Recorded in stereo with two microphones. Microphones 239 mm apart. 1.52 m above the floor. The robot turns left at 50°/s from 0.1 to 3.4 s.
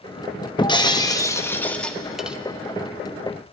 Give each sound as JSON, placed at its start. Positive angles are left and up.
{"t": 0.6, "sound": "breaking glass", "side_deg": 20, "distance_m": 0.8}